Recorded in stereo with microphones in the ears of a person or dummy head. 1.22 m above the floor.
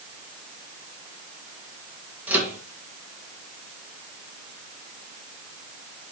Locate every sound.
2.3 s a microwave: 10° right (ahead or behind), 1.2 m